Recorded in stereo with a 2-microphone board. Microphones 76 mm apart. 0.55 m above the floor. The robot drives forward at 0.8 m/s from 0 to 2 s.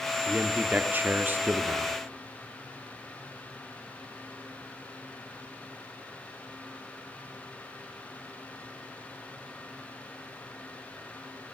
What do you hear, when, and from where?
0.3 s a man speaking: 15° right (ahead or behind), 1.1 m; by 1.9 s 20° right (ahead or behind), 0.9 m